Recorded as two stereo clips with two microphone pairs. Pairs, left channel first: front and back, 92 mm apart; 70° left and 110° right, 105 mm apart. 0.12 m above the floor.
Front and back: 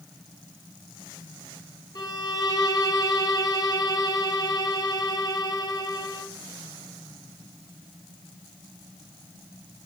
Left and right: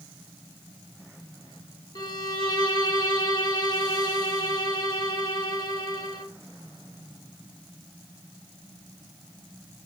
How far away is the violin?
About 0.8 m.